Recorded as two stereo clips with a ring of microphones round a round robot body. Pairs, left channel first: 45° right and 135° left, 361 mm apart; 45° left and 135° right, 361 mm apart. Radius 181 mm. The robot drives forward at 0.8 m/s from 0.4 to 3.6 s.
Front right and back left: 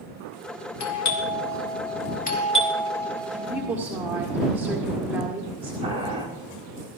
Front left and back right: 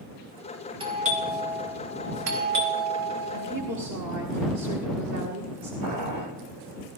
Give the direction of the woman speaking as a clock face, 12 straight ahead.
5 o'clock.